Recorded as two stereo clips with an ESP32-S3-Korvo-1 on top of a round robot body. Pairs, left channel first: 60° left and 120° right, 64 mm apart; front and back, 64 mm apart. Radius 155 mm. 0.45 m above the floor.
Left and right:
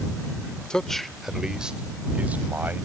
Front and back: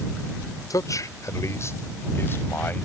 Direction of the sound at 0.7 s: 15° right.